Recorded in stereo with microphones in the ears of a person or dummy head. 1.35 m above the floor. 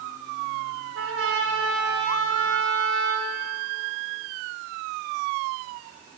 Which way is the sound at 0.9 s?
85° right.